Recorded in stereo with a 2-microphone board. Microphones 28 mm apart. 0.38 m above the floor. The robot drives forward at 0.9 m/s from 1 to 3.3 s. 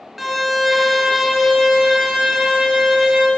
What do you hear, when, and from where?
0.2 s a violin: 5° right (ahead or behind), 0.7 m; by 3.3 s centre (ahead or behind), 2.5 m